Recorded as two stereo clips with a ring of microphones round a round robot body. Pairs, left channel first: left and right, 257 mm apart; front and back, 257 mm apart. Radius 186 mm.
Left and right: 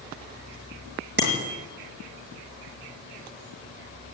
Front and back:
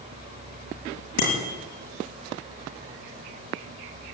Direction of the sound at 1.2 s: 45° right.